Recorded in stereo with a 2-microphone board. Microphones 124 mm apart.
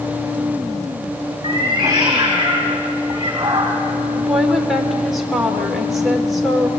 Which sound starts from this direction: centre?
A woman speaking, at 4.2 s.